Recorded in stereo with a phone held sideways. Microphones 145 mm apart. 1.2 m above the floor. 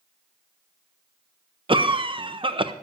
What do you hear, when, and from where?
1.7 s a cough: 35° right (ahead or behind), 0.7 m